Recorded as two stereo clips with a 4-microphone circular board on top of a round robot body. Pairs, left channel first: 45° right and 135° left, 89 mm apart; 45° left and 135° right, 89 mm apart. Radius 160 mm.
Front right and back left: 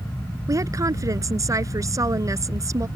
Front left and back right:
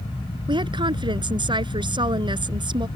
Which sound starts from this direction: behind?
A woman speaking, at 0.5 s.